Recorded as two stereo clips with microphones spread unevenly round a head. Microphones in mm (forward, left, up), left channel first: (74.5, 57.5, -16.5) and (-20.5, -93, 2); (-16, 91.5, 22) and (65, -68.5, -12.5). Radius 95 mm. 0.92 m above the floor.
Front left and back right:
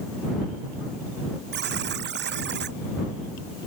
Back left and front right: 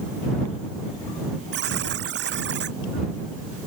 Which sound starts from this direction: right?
A buzzer, at 1.5 s.